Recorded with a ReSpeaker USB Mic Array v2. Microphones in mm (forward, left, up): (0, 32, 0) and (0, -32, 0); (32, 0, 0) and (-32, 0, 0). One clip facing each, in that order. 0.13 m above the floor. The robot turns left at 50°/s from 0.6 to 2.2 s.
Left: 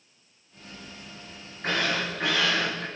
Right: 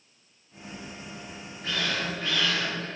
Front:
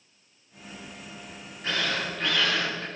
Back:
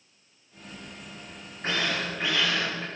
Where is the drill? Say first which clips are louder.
Left 3 dB, even; 130° left, 7 m; by 2.9 s 100° left, 7 m.